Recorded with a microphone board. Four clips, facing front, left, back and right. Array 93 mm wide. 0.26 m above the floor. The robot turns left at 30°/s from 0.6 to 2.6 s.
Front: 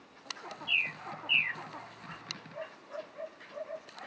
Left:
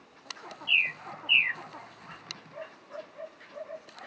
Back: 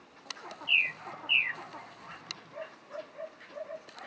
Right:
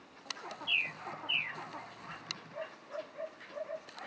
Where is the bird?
125° left; by 1.6 s 100° left.